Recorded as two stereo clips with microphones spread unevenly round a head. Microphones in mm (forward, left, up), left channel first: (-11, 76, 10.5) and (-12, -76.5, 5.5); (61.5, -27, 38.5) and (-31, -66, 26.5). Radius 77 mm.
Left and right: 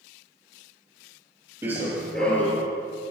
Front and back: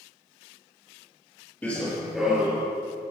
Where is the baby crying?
I don't hear a baby crying.